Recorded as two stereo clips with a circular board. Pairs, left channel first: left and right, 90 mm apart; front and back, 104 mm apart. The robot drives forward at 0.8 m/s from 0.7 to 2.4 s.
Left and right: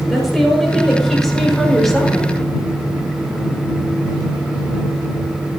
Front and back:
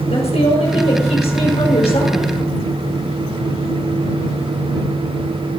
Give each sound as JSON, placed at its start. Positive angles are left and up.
{"t": 0.1, "sound": "a woman speaking", "azimuth_deg": 0, "distance_m": 6.0}